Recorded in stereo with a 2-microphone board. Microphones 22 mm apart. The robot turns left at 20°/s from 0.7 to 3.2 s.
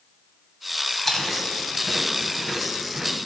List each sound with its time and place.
1.0 s chewing: 15° left (ahead or behind), 1.5 m; by 3.2 s 20° right (ahead or behind), 1.5 m